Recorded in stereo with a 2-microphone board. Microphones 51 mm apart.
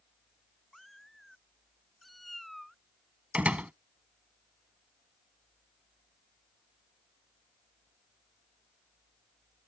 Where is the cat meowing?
5° left (ahead or behind).